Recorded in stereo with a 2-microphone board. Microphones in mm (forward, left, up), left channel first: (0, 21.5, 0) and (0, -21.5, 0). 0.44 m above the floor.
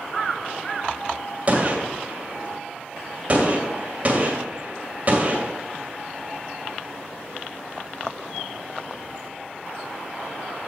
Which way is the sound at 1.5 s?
35° right (ahead or behind).